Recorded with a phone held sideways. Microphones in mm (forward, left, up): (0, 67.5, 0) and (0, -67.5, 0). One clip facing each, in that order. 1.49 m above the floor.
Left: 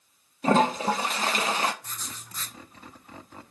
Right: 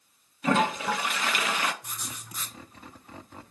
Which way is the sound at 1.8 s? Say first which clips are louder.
Right 1 dB; 10° right (ahead or behind).